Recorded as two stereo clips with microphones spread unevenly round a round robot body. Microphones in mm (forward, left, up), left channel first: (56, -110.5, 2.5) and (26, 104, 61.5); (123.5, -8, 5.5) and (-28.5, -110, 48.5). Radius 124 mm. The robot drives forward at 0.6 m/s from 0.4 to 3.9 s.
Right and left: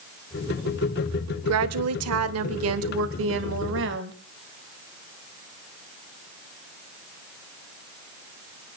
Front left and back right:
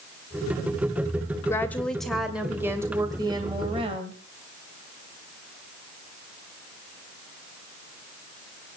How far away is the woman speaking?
About 1.6 m.